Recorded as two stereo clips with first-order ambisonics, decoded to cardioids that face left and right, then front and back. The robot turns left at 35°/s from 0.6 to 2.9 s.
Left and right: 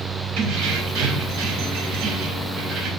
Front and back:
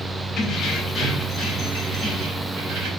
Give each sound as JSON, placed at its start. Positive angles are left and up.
{"t": 0.4, "sound": "keys jangling", "azimuth_deg": -70, "distance_m": 2.5}